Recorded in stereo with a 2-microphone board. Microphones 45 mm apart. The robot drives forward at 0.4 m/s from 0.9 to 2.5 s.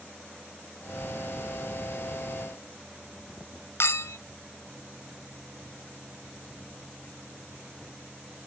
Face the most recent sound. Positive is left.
turn(degrees=70)  # may be behind; listen again after turning